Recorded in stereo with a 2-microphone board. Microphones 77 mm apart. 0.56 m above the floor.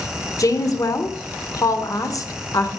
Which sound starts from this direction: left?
A woman speaking, at 0.4 s.